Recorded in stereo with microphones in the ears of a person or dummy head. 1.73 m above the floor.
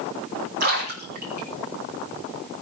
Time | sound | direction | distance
0.6 | a splash | 50° right (ahead or behind) | 4.5 m